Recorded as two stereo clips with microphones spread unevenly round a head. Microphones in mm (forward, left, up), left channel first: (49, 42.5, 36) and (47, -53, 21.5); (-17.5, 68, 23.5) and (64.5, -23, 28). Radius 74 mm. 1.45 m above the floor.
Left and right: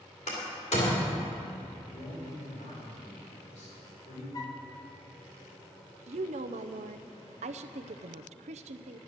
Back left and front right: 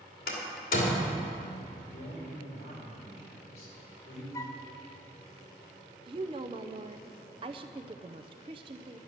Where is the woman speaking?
105° right, 0.6 m.